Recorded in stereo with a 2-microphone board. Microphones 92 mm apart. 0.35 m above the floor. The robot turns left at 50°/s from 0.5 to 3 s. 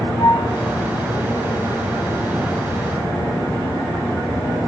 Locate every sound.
0.2 s a piano: 45° left (ahead or behind), 3 m